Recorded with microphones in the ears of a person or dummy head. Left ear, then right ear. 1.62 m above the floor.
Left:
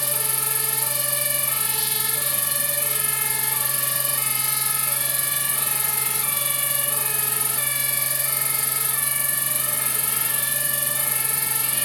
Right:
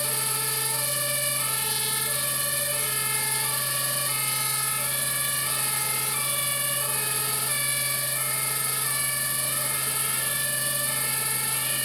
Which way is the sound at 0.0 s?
50° left (ahead or behind).